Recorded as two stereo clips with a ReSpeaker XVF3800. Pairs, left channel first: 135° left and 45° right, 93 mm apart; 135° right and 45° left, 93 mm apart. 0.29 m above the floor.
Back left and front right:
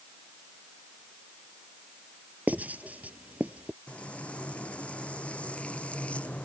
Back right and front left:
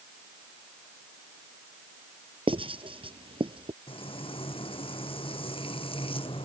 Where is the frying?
150° right.